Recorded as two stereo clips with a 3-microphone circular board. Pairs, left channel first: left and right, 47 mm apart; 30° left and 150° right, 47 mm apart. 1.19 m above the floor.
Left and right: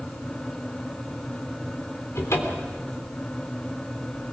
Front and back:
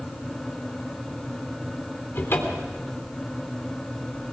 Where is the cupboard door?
70° left, 3.5 m.